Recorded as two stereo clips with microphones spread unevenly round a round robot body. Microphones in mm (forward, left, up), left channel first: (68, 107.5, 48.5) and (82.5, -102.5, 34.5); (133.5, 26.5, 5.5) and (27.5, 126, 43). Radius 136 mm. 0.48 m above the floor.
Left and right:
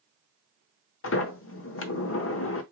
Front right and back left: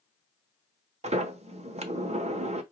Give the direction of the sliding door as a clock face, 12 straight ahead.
9 o'clock.